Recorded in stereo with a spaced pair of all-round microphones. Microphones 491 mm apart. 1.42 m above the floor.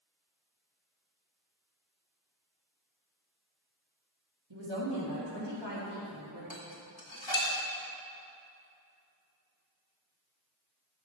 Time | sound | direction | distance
4.5 | a woman speaking | 75° right (ahead or behind) | 2.5 m
6.5 | dishes clattering | 65° left (ahead or behind) | 2.5 m